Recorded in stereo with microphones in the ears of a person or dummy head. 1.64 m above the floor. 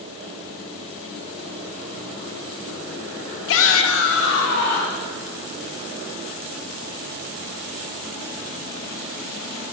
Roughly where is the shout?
Left.